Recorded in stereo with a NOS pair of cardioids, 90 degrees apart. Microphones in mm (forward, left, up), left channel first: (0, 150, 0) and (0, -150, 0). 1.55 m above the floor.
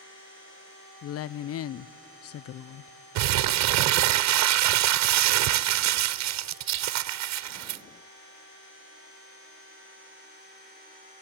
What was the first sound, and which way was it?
A woman speaking, 50° left.